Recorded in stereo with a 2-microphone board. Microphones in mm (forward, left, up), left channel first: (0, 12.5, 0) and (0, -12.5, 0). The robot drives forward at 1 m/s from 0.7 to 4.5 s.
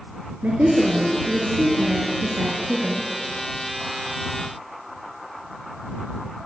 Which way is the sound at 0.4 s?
70° right (ahead or behind).